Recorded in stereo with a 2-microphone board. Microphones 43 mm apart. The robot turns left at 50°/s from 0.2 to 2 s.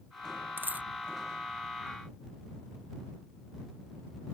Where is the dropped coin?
55° right (ahead or behind); by 0.9 s 40° right (ahead or behind).